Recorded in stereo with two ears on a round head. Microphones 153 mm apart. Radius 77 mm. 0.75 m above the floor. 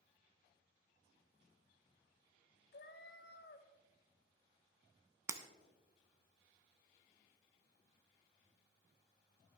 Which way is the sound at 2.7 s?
65° left (ahead or behind).